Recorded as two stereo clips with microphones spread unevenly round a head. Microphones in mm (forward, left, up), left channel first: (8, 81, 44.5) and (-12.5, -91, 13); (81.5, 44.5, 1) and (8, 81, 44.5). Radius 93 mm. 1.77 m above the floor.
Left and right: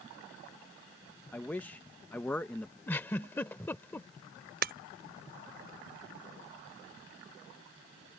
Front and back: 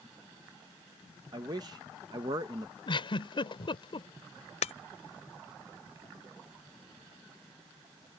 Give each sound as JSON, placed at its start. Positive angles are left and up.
{"t": 1.3, "sound": "a man speaking", "azimuth_deg": 160}
{"t": 2.9, "sound": "a giggle", "azimuth_deg": 10}
{"t": 4.6, "sound": "breaking glass", "azimuth_deg": -55}